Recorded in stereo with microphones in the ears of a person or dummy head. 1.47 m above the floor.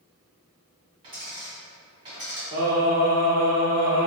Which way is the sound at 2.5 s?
20° right (ahead or behind).